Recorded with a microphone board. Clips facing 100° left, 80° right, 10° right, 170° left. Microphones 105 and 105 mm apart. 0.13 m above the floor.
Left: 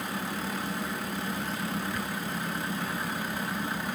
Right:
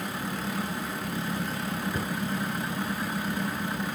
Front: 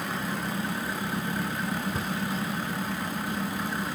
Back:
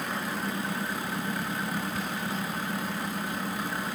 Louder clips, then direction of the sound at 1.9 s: Right 3 dB, front 2 dB; 45° right.